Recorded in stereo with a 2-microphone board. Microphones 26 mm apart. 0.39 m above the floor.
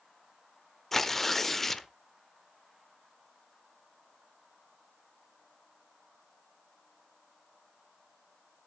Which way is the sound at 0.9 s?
15° left (ahead or behind).